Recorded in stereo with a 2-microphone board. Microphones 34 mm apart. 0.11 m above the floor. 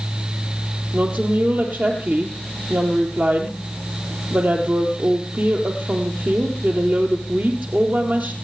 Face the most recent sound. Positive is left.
turn(degrees=-60)  # may be behind; listen again after turning